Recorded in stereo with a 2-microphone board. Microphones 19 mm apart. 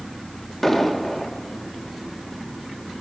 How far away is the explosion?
About 2 m.